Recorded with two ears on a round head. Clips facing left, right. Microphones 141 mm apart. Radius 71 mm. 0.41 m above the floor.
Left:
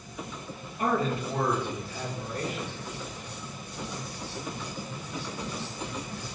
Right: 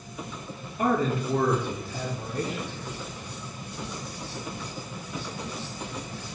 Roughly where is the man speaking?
Right.